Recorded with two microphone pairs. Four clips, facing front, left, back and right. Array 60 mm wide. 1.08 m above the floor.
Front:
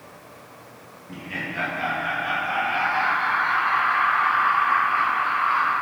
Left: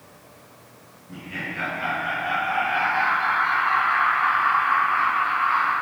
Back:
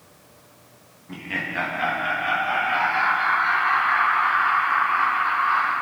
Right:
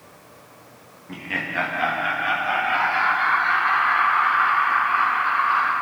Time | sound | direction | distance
1.1 | laughter | 115° right | 1.5 m